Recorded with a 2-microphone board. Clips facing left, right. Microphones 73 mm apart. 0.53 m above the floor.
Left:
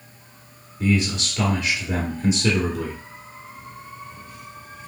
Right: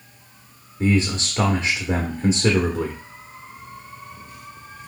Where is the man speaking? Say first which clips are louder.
Right 1 dB; 35° right (ahead or behind), 0.8 m.